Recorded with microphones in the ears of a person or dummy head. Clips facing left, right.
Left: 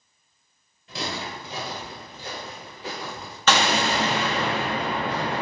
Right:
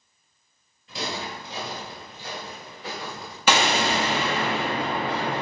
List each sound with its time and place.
0.9 s footsteps: 45° left (ahead or behind), 1.8 m; by 3.4 s 5° left (ahead or behind), 1.5 m
3.5 s an explosion: 10° right (ahead or behind), 0.8 m